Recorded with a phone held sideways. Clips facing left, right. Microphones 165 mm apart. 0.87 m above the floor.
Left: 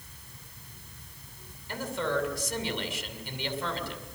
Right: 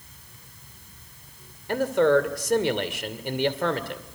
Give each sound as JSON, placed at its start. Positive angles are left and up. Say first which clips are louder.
{"t": 1.7, "sound": "a man speaking", "louder": "right 11 dB", "side_deg": -65, "distance_m": 2.5}